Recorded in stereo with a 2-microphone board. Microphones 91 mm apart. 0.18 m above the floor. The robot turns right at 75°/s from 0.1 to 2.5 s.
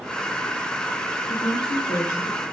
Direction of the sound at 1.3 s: 75° left.